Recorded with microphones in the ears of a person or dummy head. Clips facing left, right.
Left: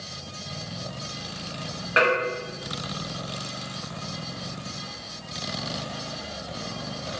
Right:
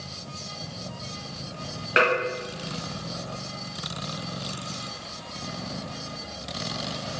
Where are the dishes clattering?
35° right (ahead or behind), 1.3 m.